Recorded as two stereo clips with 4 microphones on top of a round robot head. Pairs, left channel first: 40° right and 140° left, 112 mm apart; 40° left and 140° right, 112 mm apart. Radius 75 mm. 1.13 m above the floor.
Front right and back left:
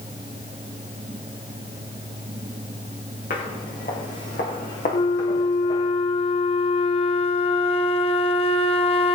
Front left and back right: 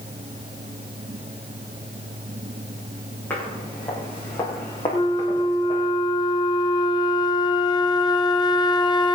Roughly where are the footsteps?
Ahead right.